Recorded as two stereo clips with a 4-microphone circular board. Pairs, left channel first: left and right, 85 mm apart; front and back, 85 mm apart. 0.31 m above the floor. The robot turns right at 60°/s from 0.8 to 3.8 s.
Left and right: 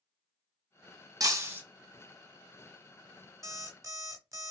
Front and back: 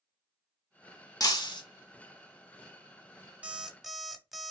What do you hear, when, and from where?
1.2 s breaking glass: 45° right, 0.8 m; by 1.6 s 20° right, 0.8 m
3.4 s an alarm clock: 115° right, 0.8 m; by 4.5 s 95° right, 0.8 m